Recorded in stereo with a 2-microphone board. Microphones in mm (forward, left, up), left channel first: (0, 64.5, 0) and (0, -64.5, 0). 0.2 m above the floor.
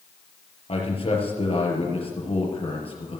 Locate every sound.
0.7 s a man speaking: 45° left (ahead or behind), 4.5 m